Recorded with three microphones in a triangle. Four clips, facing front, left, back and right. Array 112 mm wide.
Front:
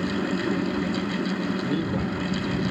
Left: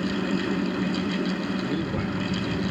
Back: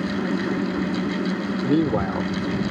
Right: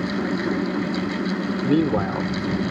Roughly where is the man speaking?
Behind right.